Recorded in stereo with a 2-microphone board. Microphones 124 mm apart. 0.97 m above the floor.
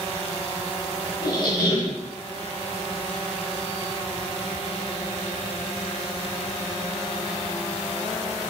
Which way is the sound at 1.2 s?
35° left (ahead or behind).